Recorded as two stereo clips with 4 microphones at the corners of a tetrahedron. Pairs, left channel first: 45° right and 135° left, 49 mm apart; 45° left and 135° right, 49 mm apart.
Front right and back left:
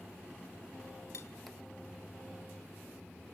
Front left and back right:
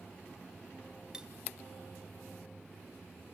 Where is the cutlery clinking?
65° right, 0.7 m.